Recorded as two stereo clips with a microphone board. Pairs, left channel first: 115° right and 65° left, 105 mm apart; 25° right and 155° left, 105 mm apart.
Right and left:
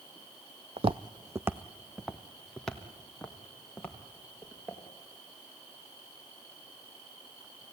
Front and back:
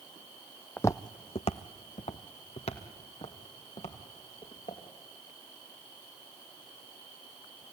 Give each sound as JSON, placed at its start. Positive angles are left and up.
{"t": 0.8, "sound": "footsteps", "azimuth_deg": 50, "distance_m": 0.6}